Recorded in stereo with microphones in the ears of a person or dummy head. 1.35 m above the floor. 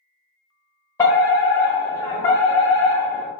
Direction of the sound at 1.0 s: 20° left (ahead or behind).